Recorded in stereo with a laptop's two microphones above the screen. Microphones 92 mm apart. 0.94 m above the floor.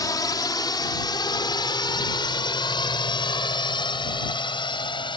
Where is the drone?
50° left (ahead or behind); by 5.2 s 75° left (ahead or behind).